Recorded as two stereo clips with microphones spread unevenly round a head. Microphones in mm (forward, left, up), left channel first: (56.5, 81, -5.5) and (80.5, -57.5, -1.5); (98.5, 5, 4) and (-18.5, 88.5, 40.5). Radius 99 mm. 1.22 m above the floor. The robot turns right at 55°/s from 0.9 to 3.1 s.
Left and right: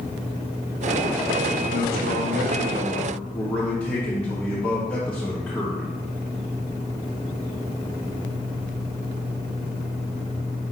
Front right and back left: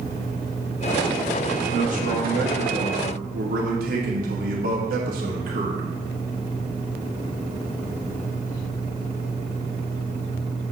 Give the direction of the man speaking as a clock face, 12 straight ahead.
8 o'clock.